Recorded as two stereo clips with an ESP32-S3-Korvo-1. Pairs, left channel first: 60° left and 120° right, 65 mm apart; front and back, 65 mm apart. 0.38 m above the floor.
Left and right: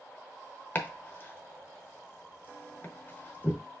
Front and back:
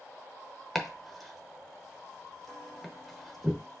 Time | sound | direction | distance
0.8 | chopping | 90° left | 0.8 m